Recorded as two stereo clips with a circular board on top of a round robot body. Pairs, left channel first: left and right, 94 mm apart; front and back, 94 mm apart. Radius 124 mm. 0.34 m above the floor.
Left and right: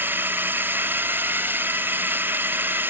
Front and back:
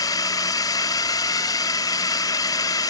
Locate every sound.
0.0 s a drone: 30° right